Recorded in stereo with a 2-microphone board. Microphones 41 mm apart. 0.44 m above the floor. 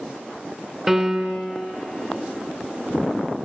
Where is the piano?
15° right (ahead or behind), 0.7 m.